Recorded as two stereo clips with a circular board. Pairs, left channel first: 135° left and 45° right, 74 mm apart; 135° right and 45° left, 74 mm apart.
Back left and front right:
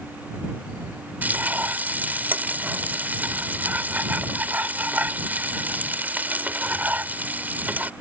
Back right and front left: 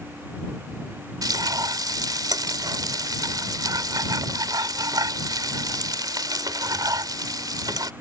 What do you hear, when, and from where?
1.2 s frying: 20° left